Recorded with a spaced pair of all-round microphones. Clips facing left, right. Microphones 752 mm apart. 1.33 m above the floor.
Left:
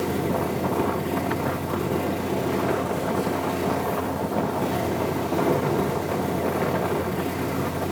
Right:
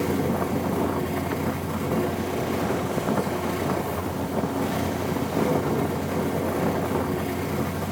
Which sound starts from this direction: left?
A fan, at 0.0 s.